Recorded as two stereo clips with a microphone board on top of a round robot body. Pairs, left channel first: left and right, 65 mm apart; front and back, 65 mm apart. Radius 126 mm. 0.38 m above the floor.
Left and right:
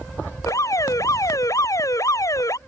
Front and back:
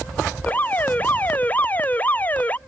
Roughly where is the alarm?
Ahead left.